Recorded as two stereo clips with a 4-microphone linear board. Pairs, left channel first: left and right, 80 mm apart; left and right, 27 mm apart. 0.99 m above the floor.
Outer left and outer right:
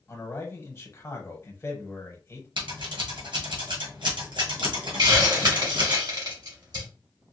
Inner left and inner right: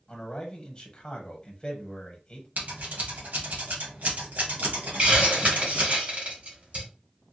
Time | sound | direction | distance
0.1 | a man speaking | 30° left (ahead or behind) | 1.2 m
2.6 | scissors | 85° right | 1.6 m
5.0 | a hiss | 55° right (ahead or behind) | 2 m